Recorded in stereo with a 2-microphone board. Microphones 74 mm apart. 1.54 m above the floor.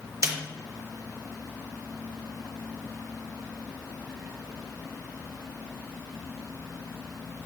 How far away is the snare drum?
About 0.6 m.